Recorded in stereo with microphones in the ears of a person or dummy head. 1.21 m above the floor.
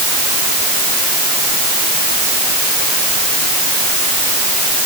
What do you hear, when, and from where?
Only background noise.